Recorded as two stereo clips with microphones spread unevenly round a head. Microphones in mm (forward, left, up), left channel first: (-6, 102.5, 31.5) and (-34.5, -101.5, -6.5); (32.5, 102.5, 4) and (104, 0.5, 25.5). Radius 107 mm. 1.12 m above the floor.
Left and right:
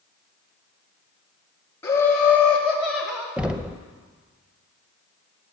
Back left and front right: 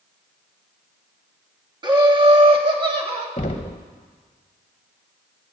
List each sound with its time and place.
1.8 s laughter: straight ahead, 2.5 m; by 3.3 s 10° right, 3.5 m
3.4 s knocking: straight behind, 0.8 m